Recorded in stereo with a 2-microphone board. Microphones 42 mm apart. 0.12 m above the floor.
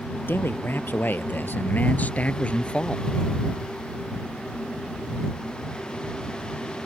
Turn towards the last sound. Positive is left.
turn(degrees=20)  # may be behind; listen again after turning